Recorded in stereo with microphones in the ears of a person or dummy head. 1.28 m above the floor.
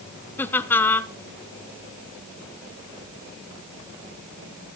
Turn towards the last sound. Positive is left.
turn(degrees=10)  # may be behind; listen again after turning